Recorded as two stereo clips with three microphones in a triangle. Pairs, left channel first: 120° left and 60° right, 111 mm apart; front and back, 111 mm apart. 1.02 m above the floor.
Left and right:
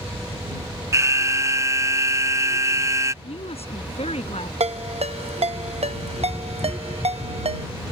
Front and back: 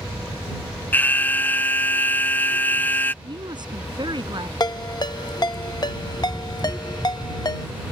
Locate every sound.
0.9 s an alarm: 50° right
3.2 s a woman speaking: 135° left
4.6 s a ringtone: 50° right